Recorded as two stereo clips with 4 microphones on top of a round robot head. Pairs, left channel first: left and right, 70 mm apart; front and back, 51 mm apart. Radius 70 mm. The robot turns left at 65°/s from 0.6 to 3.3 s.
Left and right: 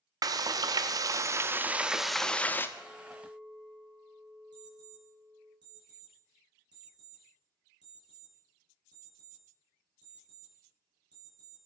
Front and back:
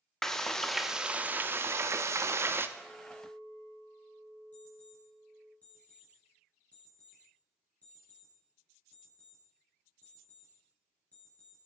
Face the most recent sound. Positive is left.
turn(degrees=-70)